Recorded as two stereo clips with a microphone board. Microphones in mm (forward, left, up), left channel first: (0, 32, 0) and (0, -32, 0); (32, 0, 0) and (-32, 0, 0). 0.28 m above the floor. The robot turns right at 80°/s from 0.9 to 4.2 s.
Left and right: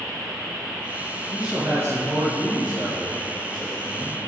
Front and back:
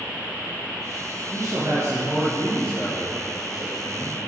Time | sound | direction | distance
1.3 | a man speaking | 175° left | 3.5 m